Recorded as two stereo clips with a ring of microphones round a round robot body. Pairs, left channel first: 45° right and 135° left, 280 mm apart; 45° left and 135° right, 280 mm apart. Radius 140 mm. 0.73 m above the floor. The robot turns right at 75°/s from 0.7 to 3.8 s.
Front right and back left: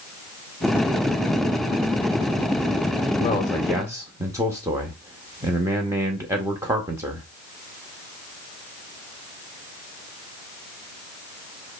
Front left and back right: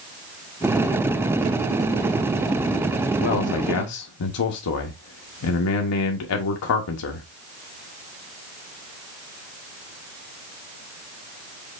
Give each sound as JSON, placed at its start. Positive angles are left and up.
{"t": 3.2, "sound": "a man speaking", "azimuth_deg": 10, "distance_m": 0.6}